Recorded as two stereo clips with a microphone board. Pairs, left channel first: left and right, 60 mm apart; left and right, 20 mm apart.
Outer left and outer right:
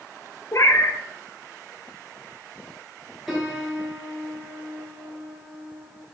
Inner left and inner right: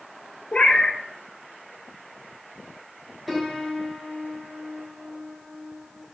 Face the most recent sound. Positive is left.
turn(degrees=-5)  # may be behind; listen again after turning